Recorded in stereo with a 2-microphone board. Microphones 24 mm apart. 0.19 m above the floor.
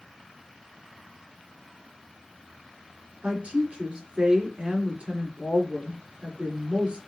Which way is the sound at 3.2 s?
60° right (ahead or behind).